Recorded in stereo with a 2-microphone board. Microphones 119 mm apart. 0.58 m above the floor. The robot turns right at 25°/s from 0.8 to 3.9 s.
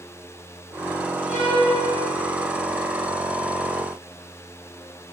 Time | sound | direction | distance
1.3 | a violin | 85° left | 3.5 m